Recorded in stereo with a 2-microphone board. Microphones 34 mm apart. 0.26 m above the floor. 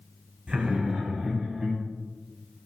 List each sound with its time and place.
0.5 s laughter: 30° right (ahead or behind), 1.9 m; by 1.8 s 5° right (ahead or behind), 2 m